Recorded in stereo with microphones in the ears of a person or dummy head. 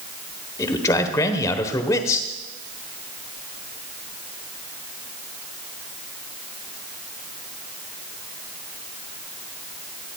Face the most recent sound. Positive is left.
turn(degrees=20)  # may be behind; listen again after turning